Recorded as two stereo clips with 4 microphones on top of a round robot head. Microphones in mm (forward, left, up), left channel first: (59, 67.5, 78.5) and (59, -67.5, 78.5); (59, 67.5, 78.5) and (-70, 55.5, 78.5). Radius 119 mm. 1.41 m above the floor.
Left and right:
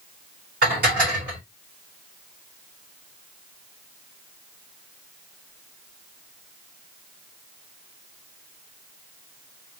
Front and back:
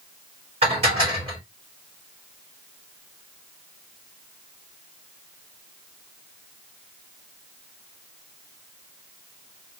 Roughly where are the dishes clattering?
Behind right.